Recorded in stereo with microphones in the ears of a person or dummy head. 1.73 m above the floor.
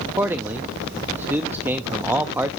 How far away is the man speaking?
About 0.7 m.